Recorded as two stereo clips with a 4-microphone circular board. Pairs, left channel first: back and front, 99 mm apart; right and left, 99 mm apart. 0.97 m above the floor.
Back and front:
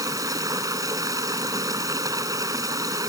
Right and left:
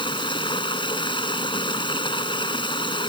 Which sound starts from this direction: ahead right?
Running water, at 0.0 s.